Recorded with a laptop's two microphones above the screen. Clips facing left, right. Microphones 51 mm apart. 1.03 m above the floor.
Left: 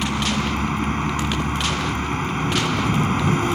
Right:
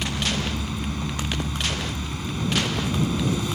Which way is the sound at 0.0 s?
45° left (ahead or behind).